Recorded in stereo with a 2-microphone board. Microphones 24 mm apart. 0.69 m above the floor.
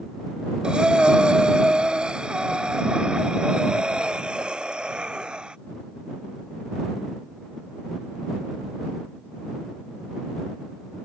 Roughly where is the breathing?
Right.